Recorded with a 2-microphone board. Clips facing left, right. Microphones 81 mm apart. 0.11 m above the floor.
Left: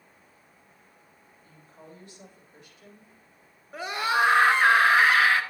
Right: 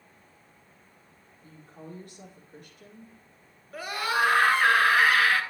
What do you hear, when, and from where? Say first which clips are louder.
1.4 s a woman speaking: right 5 dB; 50° right (ahead or behind), 3.5 m
3.7 s a scream: left 2 dB; 20° left (ahead or behind), 1.2 m